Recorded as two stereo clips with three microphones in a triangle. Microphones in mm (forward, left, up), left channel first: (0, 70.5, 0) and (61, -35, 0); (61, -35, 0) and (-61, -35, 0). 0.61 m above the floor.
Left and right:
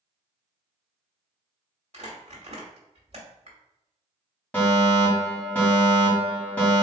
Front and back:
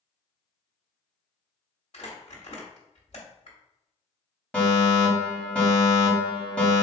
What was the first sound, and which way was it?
Crumpling, 30° right.